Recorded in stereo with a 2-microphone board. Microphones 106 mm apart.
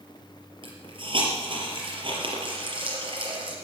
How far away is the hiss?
About 4 m.